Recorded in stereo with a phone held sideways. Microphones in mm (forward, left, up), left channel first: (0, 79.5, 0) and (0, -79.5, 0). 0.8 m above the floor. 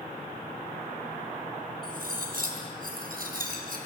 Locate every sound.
1.8 s cutlery clinking: 65° right (ahead or behind), 3.5 m